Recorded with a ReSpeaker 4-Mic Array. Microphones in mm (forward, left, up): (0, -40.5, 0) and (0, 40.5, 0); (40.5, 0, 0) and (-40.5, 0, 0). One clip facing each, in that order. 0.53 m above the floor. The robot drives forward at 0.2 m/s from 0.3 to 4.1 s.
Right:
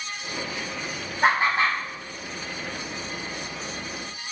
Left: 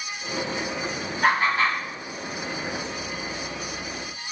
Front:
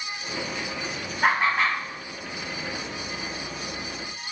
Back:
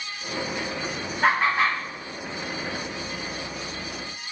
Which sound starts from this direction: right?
Laughter, at 1.2 s.